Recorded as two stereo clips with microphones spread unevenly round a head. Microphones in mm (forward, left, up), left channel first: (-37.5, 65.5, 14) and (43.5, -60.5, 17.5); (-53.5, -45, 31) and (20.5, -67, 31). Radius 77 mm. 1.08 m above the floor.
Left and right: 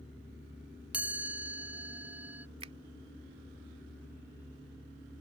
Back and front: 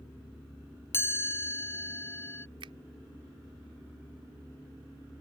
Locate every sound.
0.9 s a chime: 140° right
2.6 s a finger snap: 5° right